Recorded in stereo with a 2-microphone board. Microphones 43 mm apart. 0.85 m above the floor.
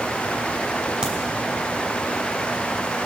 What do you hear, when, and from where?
1.0 s a crack: 15° right (ahead or behind), 2 m